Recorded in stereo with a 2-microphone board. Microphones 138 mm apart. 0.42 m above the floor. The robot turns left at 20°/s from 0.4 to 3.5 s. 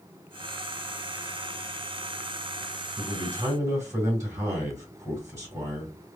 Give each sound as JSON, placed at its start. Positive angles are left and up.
{"t": 3.0, "sound": "a man speaking", "side_deg": -30, "distance_m": 2.0}